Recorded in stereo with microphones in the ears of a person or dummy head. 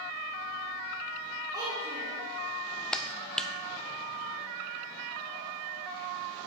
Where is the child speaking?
15° right (ahead or behind), 1.9 m.